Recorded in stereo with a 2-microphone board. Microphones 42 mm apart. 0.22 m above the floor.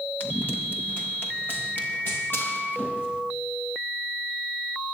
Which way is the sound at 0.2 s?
55° left (ahead or behind).